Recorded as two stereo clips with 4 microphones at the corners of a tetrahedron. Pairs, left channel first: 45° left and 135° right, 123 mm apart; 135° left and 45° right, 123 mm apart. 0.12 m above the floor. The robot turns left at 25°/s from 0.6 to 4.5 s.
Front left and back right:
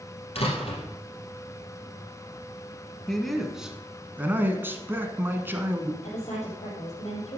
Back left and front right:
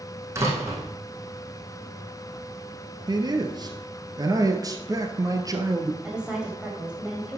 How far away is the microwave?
I don't hear a microwave.